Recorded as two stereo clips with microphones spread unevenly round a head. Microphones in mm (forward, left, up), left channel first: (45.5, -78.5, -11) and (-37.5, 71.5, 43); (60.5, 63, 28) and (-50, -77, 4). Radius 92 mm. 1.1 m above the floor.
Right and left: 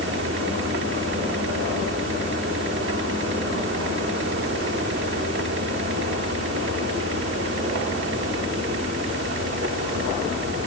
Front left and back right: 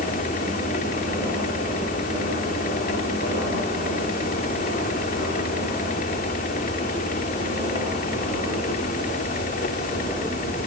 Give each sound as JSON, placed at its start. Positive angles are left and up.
{"t": 0.0, "sound": "a fan", "azimuth_deg": 95}